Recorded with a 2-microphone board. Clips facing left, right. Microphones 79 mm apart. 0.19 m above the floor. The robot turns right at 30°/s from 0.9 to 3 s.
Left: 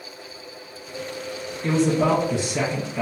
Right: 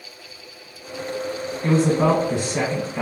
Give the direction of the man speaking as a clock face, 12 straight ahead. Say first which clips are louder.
Right 2 dB; 3 o'clock.